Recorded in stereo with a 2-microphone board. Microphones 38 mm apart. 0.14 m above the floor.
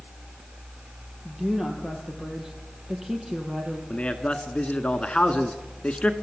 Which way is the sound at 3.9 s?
30° left (ahead or behind).